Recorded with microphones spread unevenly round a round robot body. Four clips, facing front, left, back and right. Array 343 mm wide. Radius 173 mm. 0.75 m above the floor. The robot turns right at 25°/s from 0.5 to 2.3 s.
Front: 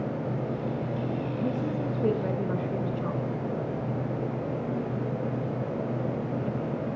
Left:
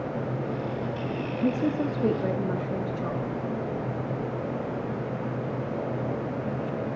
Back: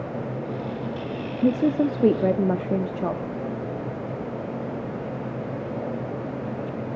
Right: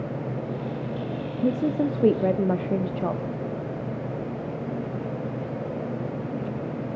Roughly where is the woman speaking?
Behind.